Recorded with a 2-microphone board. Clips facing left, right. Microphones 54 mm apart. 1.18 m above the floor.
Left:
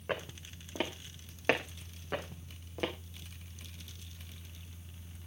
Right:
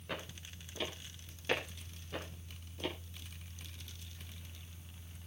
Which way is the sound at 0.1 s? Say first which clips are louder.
Left 6 dB; 40° left (ahead or behind).